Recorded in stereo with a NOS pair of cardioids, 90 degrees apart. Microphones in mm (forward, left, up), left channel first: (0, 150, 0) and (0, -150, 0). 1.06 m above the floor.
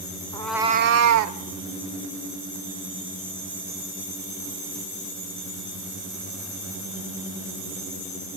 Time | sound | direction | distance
0.3 | a cat meowing | 15° left | 1.0 m